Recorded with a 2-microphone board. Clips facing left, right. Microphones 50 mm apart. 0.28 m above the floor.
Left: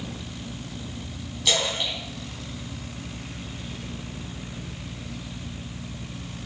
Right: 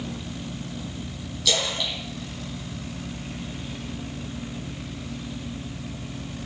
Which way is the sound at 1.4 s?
25° left (ahead or behind).